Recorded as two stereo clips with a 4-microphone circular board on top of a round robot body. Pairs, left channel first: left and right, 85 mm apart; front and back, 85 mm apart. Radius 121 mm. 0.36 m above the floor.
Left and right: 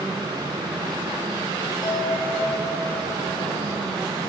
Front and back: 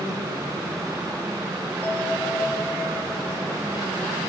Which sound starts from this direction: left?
A bell, at 1.8 s.